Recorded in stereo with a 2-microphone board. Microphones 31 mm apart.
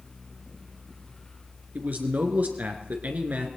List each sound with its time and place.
1.8 s a man speaking: 60° right (ahead or behind), 2.5 m